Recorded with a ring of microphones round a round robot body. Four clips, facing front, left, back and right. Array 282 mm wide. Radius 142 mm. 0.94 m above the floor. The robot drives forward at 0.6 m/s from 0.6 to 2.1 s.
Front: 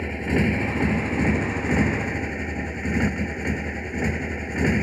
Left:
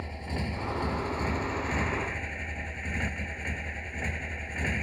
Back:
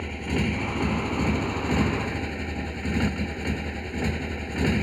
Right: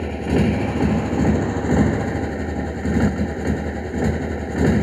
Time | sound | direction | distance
0.0 | a motorcycle | 75° right | ?